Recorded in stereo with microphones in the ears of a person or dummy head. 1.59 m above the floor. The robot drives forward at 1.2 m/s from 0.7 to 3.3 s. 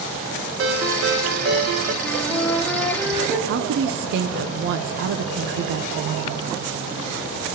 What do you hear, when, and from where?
0.6 s a ringtone: 60° right (ahead or behind), 1.2 m; by 1.9 s 45° right (ahead or behind), 1.6 m
2.0 s a flute: 5° right (ahead or behind), 1.6 m
3.5 s a woman speaking: 55° right (ahead or behind), 0.6 m